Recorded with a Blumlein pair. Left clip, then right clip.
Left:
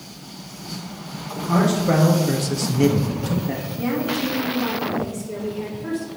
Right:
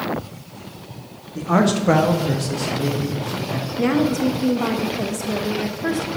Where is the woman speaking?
65° right, 0.9 m.